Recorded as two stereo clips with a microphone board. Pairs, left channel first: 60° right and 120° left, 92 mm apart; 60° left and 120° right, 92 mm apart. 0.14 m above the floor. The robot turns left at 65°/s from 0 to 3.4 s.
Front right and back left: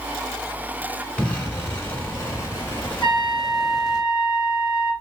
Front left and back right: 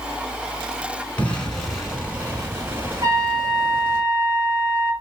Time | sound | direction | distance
1.2 | an explosion | 5° left | 1.4 m
3.0 | a trumpet | 130° right | 1.6 m